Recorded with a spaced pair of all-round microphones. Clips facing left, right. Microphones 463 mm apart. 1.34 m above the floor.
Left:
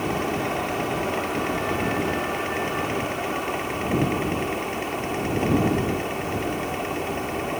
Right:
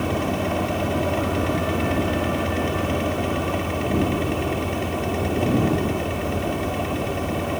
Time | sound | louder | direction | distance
0.0 | a fan | right 2 dB | 55° right (ahead or behind) | ?